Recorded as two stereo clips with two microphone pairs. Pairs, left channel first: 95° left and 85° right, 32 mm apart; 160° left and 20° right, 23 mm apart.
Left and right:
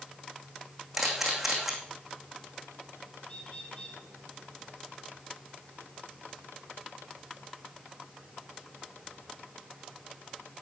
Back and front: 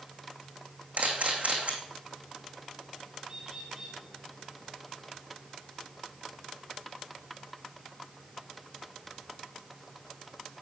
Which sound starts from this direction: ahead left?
A bird, at 3.2 s.